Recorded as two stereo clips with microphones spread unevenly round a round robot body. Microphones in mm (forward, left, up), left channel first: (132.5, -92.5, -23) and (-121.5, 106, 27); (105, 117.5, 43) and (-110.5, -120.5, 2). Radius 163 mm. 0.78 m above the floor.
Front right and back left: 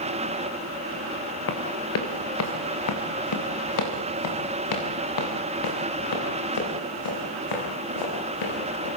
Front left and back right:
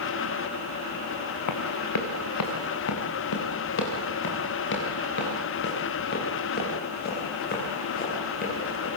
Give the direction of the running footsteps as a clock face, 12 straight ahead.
11 o'clock.